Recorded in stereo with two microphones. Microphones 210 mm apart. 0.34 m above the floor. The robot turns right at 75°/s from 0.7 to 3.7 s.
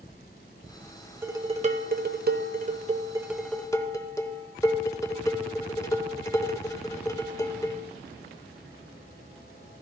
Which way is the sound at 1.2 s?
165° right.